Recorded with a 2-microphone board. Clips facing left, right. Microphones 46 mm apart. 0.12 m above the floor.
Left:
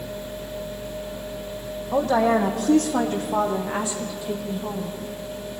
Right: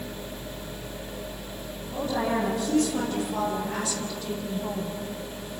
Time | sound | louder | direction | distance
1.9 | a woman speaking | left 8 dB | 60° left (ahead or behind) | 5.5 m